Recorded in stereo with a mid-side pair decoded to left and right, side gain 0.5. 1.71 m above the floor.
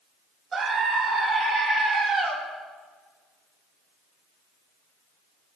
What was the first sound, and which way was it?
A scream, 40° right.